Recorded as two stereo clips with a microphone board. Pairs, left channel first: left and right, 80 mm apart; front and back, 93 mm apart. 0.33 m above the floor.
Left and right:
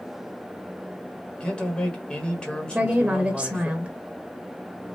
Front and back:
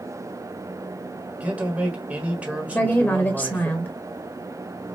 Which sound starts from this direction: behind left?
A man speaking, at 1.4 s.